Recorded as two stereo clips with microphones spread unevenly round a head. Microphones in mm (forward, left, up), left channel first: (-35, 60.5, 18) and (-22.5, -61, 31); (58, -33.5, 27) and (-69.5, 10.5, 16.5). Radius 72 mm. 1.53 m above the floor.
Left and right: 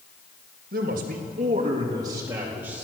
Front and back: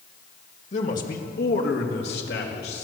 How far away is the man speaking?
About 2.5 m.